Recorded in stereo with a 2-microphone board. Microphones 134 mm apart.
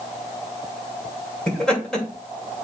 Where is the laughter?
5° left (ahead or behind), 2.5 m.